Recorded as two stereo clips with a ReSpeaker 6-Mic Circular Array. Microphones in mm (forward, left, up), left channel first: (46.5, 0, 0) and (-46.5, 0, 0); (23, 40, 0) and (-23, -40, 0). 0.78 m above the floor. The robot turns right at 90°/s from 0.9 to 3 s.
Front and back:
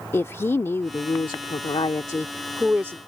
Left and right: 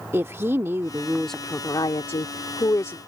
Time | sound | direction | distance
0.1 | a woman speaking | 60° right | ?